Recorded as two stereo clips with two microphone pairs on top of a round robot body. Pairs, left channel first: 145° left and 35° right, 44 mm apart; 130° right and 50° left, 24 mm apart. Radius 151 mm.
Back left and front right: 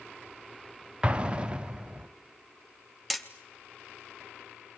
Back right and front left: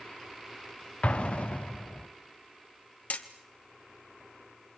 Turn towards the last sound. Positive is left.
turn(degrees=-120)